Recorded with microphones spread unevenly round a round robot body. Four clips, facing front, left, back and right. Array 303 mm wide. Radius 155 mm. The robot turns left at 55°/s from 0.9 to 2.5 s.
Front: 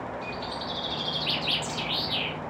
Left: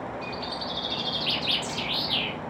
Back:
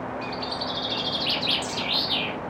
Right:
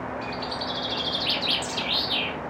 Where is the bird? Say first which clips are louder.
Right 2 dB, back 3 dB; 120° right, 1.6 m; by 2.4 s 160° left, 1.6 m.